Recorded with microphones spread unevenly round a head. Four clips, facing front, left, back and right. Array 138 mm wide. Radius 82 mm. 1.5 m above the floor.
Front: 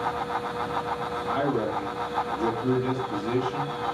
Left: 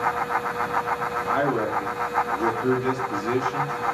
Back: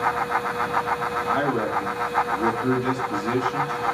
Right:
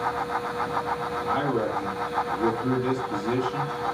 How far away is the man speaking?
About 3 m.